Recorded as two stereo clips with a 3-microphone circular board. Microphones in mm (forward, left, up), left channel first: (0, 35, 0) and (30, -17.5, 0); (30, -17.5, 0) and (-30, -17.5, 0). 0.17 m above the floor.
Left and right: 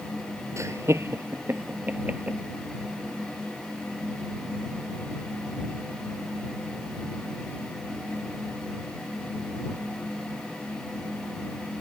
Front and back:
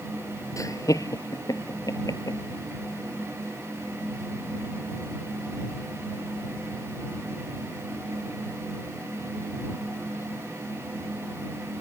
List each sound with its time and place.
0.6 s laughter: 25° right; by 2.4 s 10° left